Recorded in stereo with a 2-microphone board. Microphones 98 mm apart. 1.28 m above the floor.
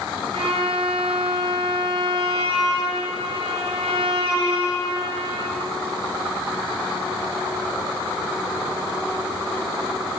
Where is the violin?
80° right, 7 m.